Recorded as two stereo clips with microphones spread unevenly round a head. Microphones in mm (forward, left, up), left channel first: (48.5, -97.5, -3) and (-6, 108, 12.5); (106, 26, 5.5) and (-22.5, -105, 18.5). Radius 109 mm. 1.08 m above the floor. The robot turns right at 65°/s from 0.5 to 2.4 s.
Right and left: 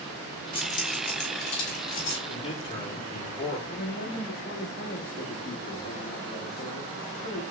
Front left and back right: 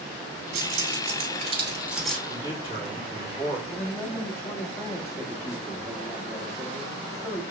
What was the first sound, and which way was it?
Keys jangling, 145° right.